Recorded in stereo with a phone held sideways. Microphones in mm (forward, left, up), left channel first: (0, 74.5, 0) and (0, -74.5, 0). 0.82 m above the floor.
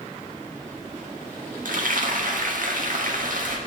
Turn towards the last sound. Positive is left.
turn(degrees=-65)  # may be behind; listen again after turning